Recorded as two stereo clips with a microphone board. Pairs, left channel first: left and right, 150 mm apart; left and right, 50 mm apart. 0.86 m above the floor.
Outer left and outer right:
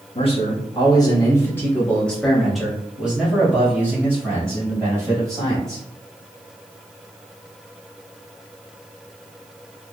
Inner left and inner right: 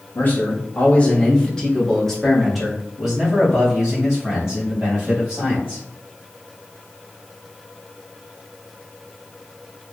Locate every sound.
0.1 s a man speaking: 40° left (ahead or behind), 1.3 m; by 5.8 s 25° right (ahead or behind), 3 m